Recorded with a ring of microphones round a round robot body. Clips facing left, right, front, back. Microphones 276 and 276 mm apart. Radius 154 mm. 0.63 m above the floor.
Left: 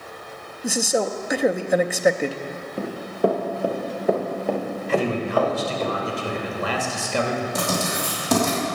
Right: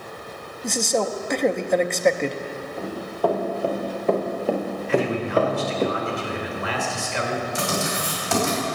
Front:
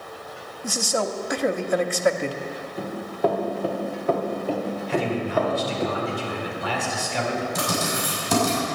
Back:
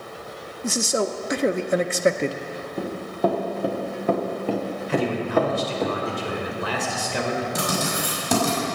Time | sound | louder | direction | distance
0.6 | a man speaking | left 1 dB, back 2 dB | 165° left | 0.6 m
2.8 | running footsteps | left 3 dB, even | 150° left | 3 m
4.9 | a man speaking | even, back 3 dB | 135° left | 2.5 m
7.5 | writing | left 1 dB, back 1 dB | 135° left | 4.5 m